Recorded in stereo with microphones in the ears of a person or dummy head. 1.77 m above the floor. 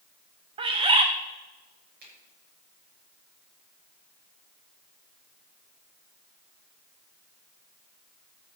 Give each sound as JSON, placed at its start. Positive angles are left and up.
{"t": 0.6, "sound": "a bird", "side_deg": -25, "distance_m": 0.8}
{"t": 2.0, "sound": "a finger snap", "side_deg": -45, "distance_m": 6.0}